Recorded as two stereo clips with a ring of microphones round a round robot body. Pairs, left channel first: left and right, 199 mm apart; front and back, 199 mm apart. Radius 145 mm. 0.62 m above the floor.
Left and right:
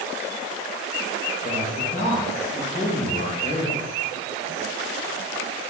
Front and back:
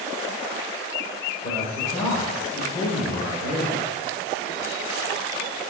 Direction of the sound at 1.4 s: 45° left.